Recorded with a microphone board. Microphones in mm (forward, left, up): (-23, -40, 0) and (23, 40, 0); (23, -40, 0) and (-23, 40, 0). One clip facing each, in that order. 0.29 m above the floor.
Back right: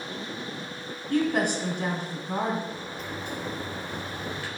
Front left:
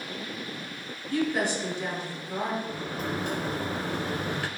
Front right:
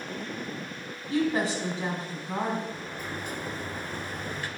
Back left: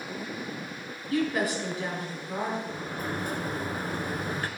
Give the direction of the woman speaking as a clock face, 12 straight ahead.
4 o'clock.